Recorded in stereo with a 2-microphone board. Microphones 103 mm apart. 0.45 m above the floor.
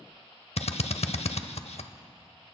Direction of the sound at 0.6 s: 80° left.